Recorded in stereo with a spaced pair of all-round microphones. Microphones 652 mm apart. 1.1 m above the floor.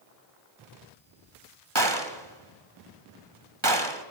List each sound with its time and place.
1.8 s a gunshot: 35° right (ahead or behind), 1.6 m